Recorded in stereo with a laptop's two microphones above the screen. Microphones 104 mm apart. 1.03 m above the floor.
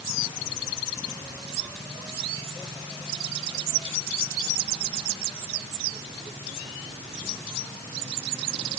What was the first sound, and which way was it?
Only background noise.